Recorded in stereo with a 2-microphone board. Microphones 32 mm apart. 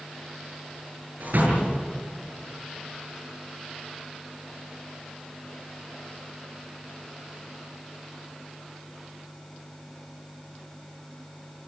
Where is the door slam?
60° right (ahead or behind), 8.5 m.